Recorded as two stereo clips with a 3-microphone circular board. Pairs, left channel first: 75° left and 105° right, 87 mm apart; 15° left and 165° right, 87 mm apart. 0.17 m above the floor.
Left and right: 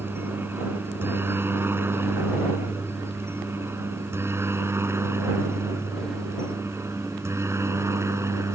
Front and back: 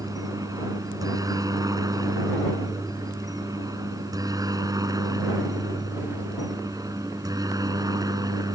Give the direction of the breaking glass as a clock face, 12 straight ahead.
I don't hear breaking glass.